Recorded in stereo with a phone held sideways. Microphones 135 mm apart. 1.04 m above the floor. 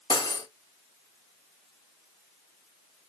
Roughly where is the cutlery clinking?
Left.